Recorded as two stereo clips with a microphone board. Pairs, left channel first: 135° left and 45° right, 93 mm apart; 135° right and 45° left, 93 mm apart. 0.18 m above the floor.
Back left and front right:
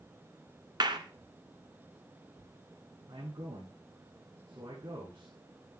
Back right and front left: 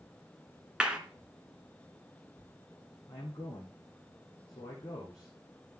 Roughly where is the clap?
Ahead right.